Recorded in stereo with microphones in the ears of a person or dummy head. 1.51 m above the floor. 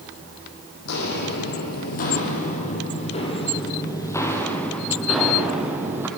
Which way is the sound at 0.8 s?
60° left (ahead or behind).